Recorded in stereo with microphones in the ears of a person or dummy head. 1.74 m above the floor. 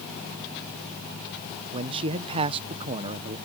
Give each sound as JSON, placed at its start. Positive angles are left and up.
{"t": 1.7, "sound": "a man speaking", "side_deg": -25}